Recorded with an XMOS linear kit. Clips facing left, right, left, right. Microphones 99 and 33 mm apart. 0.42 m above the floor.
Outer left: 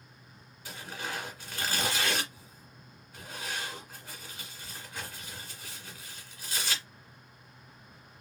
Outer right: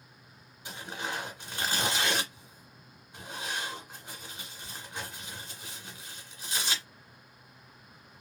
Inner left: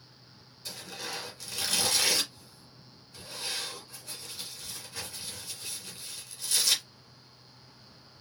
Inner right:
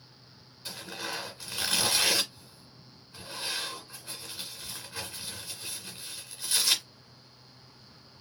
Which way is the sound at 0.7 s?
25° right (ahead or behind).